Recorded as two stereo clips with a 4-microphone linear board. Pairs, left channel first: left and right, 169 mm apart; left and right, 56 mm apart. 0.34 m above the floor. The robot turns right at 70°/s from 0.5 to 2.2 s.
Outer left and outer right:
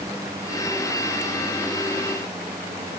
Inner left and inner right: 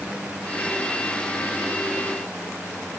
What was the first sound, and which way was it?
Only background noise.